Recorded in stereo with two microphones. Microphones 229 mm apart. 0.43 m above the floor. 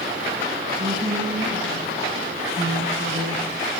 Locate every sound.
0.8 s a woman speaking: 45° right (ahead or behind), 4.5 m; by 3.5 s 80° right, 5.5 m